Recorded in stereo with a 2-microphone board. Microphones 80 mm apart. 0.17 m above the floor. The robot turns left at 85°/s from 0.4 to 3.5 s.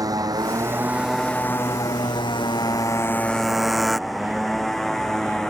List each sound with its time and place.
0.0 s a motorcycle: 55° right (ahead or behind); by 5.5 s 5° left (ahead or behind)